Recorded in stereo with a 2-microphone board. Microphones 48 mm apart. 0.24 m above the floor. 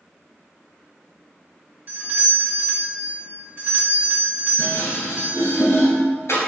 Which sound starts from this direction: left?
Dishes clattering, at 4.6 s.